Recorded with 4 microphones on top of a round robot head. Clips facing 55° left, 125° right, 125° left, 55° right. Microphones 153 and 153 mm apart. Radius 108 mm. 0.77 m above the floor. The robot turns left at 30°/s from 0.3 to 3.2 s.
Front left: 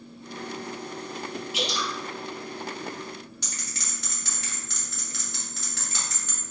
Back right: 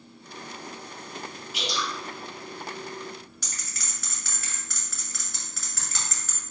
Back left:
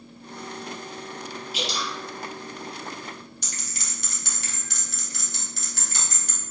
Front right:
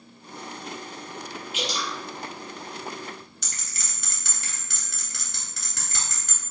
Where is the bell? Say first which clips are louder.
Front left 3 dB, back left 4 dB; 10° right, 2 m.